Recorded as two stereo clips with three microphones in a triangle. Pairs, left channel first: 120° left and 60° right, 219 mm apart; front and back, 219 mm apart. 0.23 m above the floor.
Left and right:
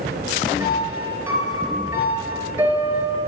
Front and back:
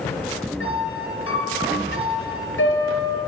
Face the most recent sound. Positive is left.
turn(degrees=20)